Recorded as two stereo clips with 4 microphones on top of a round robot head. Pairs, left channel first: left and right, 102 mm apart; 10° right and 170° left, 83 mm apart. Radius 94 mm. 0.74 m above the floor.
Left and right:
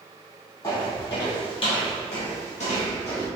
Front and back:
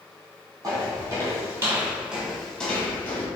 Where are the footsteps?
140° left, 1.4 m; by 3.3 s 40° left, 1.1 m.